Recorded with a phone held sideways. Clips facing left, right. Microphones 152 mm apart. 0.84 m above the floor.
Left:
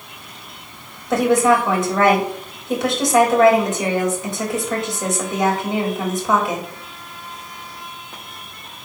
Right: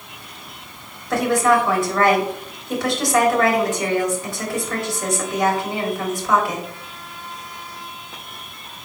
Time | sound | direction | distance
1.1 | a woman speaking | 20° left (ahead or behind) | 3.5 m